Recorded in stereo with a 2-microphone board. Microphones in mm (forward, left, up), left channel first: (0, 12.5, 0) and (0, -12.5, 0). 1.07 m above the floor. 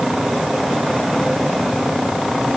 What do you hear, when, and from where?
Only background noise.